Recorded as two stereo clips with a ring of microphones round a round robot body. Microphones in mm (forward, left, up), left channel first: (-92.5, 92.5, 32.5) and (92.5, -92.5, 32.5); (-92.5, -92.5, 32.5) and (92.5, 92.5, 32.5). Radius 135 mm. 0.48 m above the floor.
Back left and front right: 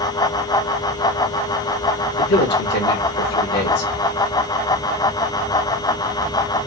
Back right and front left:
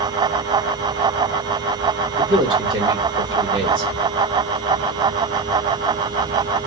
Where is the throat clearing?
No throat clearing in this recording.